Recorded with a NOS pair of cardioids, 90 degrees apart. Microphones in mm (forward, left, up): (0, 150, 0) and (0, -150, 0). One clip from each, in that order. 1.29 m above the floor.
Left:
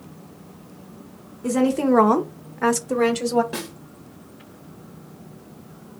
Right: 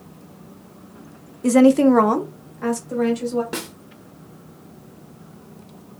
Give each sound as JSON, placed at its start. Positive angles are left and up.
{"t": 1.4, "sound": "a woman speaking", "azimuth_deg": -35, "distance_m": 0.7}
{"t": 3.5, "sound": "a snare drum", "azimuth_deg": -25, "distance_m": 0.8}